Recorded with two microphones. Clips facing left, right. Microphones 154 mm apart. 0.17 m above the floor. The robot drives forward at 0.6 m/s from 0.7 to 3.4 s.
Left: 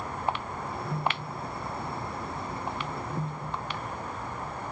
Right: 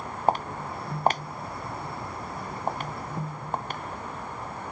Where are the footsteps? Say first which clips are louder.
Right 8 dB; 40° right (ahead or behind); by 3.8 s 45° right (ahead or behind).